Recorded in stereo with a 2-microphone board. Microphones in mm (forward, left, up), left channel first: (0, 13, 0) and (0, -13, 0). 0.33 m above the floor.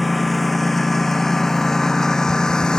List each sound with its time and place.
0.0 s a lawn mower: 5° left (ahead or behind); by 2.8 s 30° left (ahead or behind)